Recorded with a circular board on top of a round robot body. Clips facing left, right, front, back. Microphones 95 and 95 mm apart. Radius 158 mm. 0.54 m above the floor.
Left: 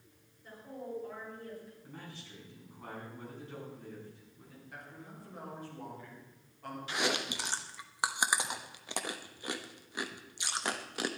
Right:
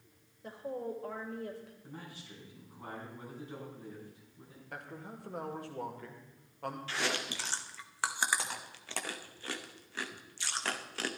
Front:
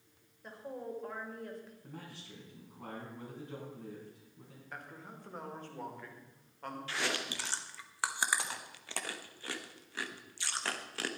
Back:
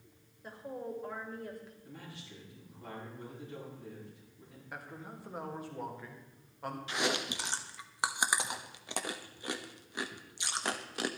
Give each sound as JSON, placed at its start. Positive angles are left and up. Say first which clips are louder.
{"t": 0.4, "sound": "a woman speaking", "louder": "right 5 dB, back 1 dB", "azimuth_deg": -95, "distance_m": 2.5}
{"t": 1.8, "sound": "a man speaking", "louder": "right 1 dB, even", "azimuth_deg": -15, "distance_m": 6.0}
{"t": 4.7, "sound": "a man speaking", "louder": "right 5 dB, back 2 dB", "azimuth_deg": -100, "distance_m": 2.5}
{"t": 6.9, "sound": "chewing", "louder": "left 4 dB, back 3 dB", "azimuth_deg": 140, "distance_m": 1.3}